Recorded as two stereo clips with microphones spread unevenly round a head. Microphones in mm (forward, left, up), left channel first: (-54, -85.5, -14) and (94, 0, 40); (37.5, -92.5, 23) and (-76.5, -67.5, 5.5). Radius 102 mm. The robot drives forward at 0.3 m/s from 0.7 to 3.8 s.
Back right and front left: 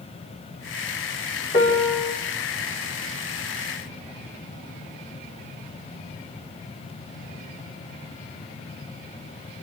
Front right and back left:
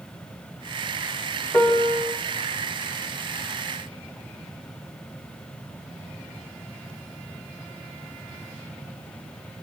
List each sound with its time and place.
1.5 s a piano: 100° right, 5 m